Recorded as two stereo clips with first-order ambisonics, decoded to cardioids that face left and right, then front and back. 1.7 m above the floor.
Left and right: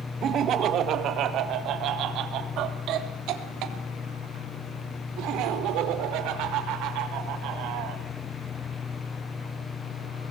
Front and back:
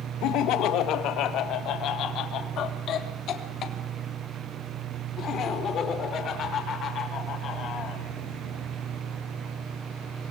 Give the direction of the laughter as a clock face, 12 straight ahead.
1 o'clock.